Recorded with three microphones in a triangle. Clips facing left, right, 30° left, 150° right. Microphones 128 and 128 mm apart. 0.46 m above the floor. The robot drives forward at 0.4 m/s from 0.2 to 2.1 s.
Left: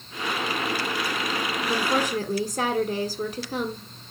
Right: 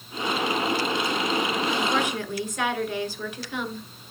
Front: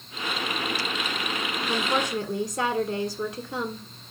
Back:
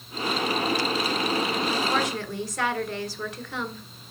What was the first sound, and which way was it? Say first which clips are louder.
A woman speaking: even, back 1 dB; 75° left.